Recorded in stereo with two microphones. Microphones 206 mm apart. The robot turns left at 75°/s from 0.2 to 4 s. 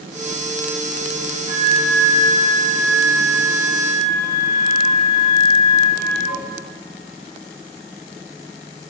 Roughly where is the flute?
Ahead right.